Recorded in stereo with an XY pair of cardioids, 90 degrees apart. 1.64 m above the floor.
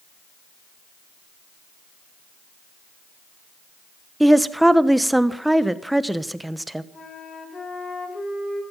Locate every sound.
4.2 s a woman speaking: 10° right, 1.1 m
6.9 s a flute: 55° left, 7 m